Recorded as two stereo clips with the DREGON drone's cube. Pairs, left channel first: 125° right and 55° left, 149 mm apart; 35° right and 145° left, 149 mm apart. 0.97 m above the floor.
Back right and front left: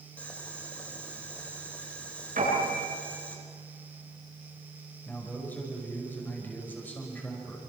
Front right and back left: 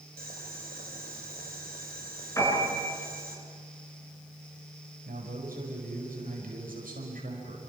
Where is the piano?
35° left, 8 m.